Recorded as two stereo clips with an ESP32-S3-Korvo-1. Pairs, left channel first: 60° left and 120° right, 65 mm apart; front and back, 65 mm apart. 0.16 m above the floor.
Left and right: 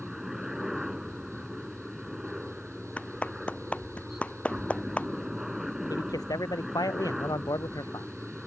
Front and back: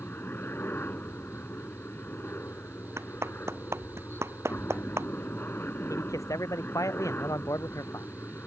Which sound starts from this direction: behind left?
A clap, at 3.0 s.